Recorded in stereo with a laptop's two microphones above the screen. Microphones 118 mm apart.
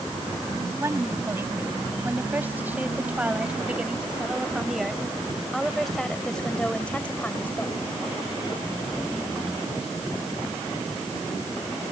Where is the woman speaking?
25° right (ahead or behind); by 7.8 s 15° left (ahead or behind).